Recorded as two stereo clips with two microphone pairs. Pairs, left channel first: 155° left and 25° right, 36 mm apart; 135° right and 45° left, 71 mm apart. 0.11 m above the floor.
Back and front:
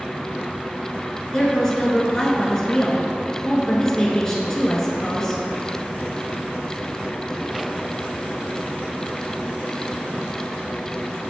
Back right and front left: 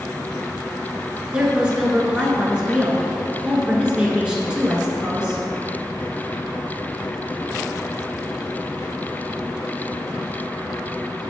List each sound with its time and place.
1.3 s a woman speaking: 100° left, 1.3 m